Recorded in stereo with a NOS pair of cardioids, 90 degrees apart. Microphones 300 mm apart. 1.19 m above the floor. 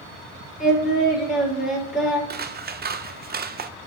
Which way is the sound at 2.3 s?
30° right.